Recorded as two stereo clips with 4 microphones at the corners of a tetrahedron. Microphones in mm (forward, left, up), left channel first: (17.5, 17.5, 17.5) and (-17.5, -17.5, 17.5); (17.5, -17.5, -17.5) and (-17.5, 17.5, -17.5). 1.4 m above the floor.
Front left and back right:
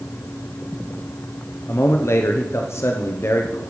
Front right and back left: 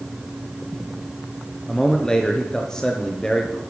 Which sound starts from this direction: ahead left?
A man speaking, at 1.7 s.